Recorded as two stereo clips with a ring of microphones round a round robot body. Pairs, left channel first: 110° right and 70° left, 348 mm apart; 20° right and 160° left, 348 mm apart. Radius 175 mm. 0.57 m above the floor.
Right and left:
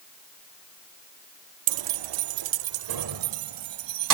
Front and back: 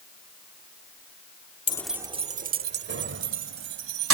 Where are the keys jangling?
50° left; by 4.1 s 105° left.